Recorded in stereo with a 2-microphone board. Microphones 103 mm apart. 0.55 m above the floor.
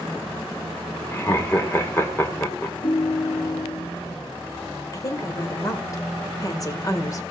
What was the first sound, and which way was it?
Laughter, 25° left (ahead or behind).